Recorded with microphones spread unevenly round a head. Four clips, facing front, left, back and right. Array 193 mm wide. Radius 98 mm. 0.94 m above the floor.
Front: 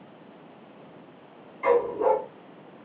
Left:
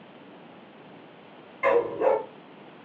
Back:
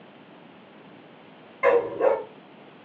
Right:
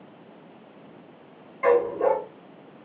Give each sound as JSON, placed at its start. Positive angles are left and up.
{"t": 1.6, "sound": "a dog barking", "azimuth_deg": -145, "distance_m": 2.0}